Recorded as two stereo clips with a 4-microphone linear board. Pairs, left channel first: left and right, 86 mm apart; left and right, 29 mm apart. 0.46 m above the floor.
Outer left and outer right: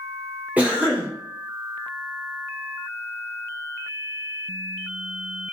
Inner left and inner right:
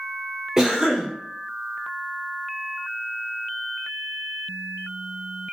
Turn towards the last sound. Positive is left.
turn(degrees=-15)  # may be behind; listen again after turning